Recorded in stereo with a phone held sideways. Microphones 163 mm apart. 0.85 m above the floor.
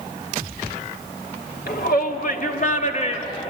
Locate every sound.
1.7 s a shout: 70° left (ahead or behind), 2 m; by 3.5 s 35° left (ahead or behind), 2.0 m